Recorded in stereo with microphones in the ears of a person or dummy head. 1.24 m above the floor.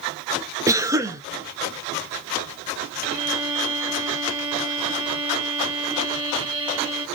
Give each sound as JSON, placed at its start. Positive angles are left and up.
{"t": 0.7, "sound": "a cough", "side_deg": -15, "distance_m": 0.5}
{"t": 3.0, "sound": "a violin", "side_deg": -25, "distance_m": 1.2}